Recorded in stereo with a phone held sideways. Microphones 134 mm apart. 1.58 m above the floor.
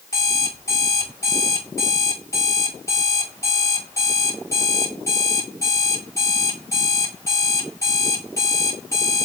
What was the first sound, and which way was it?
An alarm clock, 20° left (ahead or behind).